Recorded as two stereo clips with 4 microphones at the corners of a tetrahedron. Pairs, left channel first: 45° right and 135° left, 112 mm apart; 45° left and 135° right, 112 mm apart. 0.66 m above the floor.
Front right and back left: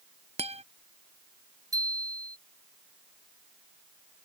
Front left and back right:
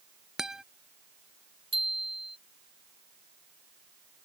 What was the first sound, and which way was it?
A guitar, 140° left.